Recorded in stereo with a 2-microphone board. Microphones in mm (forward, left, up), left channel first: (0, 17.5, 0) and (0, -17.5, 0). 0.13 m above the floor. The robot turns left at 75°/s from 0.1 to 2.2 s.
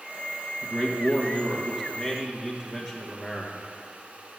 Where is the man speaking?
75° right, 2.5 m; by 3.6 s 170° left, 2.5 m.